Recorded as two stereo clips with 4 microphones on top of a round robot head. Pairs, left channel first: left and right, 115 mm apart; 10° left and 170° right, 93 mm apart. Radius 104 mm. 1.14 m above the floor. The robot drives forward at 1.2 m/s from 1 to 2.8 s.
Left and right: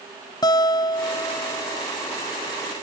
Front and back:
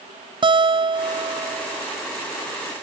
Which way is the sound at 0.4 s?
155° left.